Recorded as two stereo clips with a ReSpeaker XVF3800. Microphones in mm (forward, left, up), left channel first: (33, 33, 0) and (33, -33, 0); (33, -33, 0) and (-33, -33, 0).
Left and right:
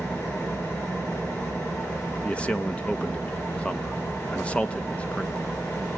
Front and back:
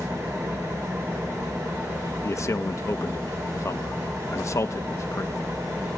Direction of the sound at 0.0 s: 145° left.